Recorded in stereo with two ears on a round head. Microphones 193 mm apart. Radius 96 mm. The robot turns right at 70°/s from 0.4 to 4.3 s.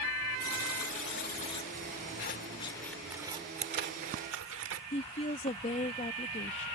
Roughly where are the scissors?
Left.